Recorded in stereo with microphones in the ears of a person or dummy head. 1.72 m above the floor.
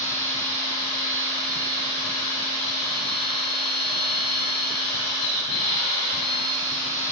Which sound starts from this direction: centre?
A machine running, at 0.0 s.